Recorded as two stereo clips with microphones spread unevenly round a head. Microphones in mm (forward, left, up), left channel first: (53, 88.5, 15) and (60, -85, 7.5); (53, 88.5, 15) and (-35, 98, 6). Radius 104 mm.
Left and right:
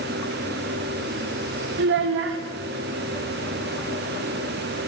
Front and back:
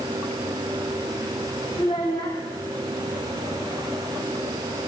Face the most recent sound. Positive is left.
turn(degrees=-75)